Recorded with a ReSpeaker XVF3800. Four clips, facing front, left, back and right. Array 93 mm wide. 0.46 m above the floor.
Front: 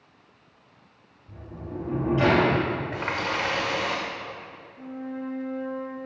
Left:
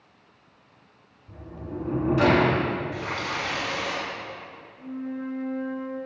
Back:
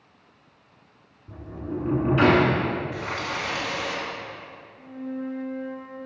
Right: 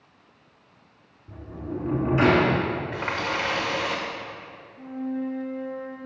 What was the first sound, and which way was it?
A sliding door, 150° right.